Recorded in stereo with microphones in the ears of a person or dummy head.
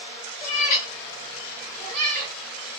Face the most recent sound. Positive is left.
turn(degrees=-40)  # may be behind; listen again after turning